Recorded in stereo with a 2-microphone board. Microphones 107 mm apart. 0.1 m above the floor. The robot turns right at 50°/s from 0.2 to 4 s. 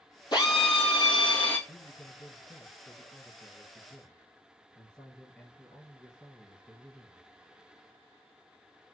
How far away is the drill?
About 1.2 m.